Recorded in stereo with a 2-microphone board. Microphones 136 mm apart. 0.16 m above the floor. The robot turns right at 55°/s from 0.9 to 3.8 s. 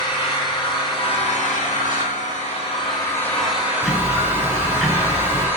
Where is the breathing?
I don't hear breathing.